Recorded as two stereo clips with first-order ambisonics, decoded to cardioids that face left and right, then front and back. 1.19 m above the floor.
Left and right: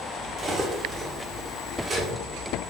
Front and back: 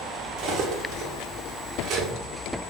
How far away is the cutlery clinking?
About 0.6 m.